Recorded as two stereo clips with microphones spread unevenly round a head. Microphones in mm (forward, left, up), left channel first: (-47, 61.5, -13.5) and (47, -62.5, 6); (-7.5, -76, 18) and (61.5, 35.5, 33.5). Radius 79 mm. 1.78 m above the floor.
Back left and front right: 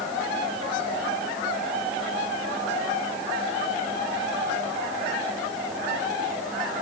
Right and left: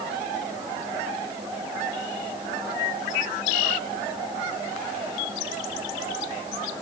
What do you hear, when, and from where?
Only background noise.